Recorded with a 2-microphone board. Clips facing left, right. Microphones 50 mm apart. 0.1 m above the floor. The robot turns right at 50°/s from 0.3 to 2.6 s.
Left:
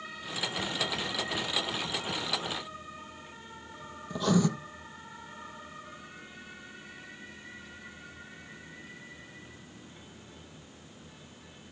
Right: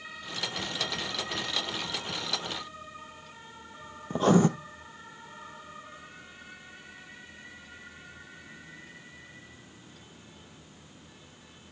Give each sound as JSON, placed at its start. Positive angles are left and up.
{"t": 4.1, "sound": "writing", "side_deg": -40, "distance_m": 0.9}